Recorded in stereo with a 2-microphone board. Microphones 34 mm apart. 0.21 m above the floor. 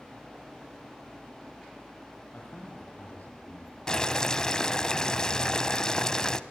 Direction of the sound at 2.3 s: 60° left (ahead or behind).